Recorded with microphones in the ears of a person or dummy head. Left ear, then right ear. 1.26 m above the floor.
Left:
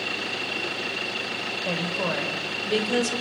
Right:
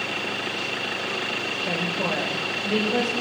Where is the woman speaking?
45° left (ahead or behind), 6 m; by 3.1 s 55° left (ahead or behind), 4.5 m.